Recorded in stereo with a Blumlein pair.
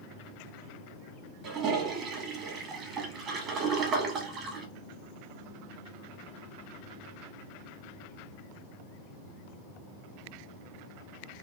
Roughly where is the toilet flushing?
Ahead right.